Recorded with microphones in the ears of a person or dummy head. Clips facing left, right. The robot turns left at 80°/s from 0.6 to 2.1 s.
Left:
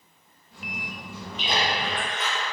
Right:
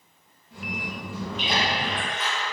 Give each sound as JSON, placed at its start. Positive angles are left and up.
{"t": 1.4, "sound": "a splash", "side_deg": 20, "distance_m": 1.0}